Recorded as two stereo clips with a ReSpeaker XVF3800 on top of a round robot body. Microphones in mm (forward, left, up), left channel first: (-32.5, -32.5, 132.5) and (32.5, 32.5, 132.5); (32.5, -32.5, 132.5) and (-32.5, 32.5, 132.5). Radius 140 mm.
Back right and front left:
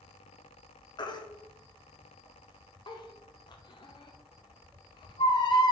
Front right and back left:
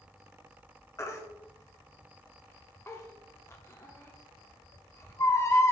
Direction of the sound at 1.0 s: 105° right.